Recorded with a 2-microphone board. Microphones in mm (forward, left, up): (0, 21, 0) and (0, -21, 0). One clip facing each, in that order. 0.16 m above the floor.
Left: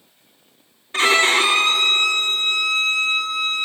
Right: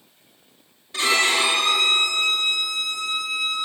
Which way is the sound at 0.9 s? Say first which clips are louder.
Left 4 dB; 40° left (ahead or behind).